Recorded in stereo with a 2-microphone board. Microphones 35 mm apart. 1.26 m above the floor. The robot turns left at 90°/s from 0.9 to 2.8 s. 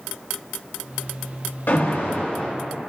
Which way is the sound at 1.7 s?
110° left.